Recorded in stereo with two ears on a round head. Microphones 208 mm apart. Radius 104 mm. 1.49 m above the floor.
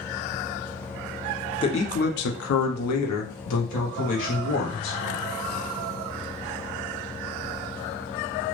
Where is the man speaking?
20° left (ahead or behind), 0.6 m; by 5.0 s 80° left, 1.7 m.